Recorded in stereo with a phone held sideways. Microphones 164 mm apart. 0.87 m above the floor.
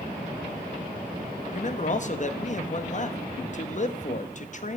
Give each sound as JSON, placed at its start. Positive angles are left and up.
{"t": 1.5, "sound": "a man speaking", "side_deg": 50, "distance_m": 0.7}